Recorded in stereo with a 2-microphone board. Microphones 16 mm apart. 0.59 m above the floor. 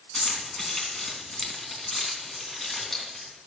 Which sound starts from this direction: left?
Keys jangling, at 0.1 s.